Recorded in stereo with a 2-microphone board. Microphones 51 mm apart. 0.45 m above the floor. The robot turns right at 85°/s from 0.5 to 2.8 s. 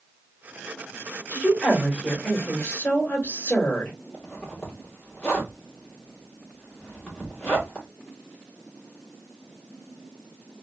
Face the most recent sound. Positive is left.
turn(degrees=20)  # may be behind; listen again after turning